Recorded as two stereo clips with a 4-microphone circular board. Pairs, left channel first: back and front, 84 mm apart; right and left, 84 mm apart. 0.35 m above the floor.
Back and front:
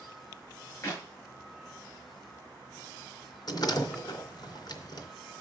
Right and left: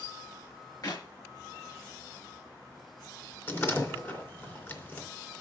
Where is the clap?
125° right, 6 m.